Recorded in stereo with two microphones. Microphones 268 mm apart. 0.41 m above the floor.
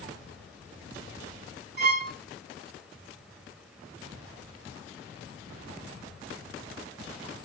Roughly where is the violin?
Left.